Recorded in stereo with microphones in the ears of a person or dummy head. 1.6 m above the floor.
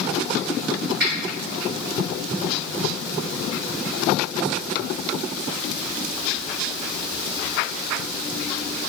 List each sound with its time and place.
1.0 s a finger snap: 60° right (ahead or behind), 1.0 m